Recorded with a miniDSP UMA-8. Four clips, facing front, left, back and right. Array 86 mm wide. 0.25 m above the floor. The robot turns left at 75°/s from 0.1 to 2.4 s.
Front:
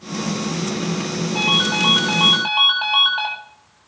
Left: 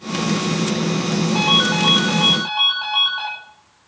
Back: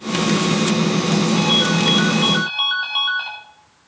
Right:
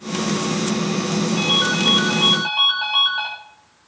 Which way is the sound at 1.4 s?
70° left.